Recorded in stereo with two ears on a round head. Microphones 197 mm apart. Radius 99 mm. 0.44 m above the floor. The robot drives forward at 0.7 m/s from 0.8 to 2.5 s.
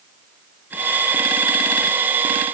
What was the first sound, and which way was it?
Only background noise.